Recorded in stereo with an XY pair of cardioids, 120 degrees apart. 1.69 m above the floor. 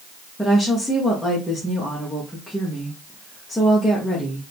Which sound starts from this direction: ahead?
A woman speaking, at 0.4 s.